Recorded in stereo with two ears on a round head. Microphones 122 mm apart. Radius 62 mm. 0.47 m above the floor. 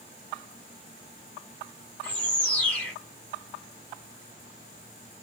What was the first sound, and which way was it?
A bird, 10° left (ahead or behind).